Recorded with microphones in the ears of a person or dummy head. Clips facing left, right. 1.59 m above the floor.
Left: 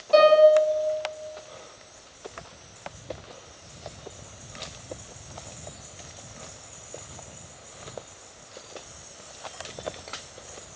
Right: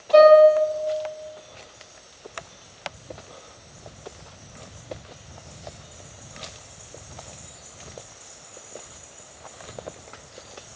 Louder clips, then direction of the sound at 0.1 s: Right 4 dB; 35° left (ahead or behind).